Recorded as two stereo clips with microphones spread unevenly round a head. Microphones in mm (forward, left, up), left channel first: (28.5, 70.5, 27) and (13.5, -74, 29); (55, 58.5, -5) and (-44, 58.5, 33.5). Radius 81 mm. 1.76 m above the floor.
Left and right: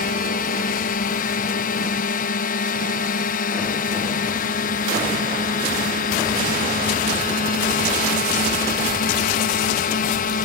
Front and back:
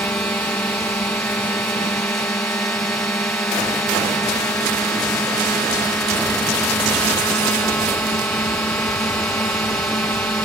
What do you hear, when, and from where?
0.0 s a drone: 70° left